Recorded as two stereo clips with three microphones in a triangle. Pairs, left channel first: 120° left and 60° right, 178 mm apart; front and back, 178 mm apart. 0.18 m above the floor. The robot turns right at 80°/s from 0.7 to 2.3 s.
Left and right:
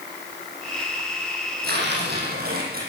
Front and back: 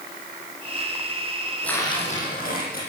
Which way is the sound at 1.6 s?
85° right.